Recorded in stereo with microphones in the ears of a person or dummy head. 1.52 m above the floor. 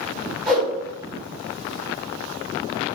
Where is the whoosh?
5° left (ahead or behind), 1.4 m.